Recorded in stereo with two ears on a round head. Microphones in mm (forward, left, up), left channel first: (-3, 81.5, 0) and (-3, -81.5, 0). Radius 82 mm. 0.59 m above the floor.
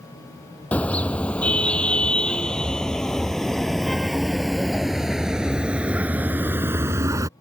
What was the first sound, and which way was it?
A car horn, 10° left (ahead or behind).